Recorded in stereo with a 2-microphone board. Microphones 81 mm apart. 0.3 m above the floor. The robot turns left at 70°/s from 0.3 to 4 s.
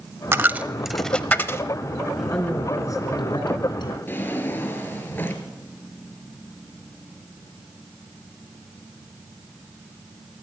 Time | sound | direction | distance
0.3 | a dropped coin | 30° right (ahead or behind) | 0.5 m
2.2 | a man speaking | 175° right | 3.5 m
4.1 | a drawer | 25° left (ahead or behind) | 1.7 m